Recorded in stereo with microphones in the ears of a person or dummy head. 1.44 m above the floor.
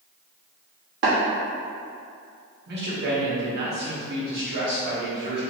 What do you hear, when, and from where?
1.0 s tapping: 65° right (ahead or behind), 1.3 m
2.7 s a man speaking: 65° right (ahead or behind), 1.1 m